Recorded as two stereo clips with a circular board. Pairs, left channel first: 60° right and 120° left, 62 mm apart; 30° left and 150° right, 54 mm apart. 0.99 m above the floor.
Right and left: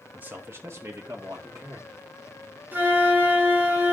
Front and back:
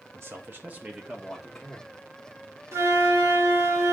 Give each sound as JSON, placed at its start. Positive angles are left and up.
{"t": 0.1, "sound": "a man speaking", "azimuth_deg": 180, "distance_m": 1.4}
{"t": 2.7, "sound": "a flute", "azimuth_deg": 180, "distance_m": 1.6}